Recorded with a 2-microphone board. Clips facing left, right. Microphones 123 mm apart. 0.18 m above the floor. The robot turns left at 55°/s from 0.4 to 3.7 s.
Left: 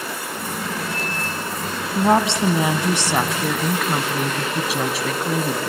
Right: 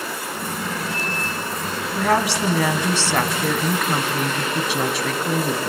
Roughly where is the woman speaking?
Left.